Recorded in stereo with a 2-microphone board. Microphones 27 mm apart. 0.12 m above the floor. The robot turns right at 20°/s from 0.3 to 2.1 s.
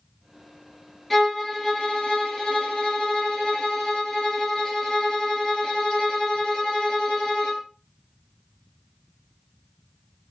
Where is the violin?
Centre (ahead or behind), 0.9 m; by 7.6 s 15° left (ahead or behind), 0.9 m.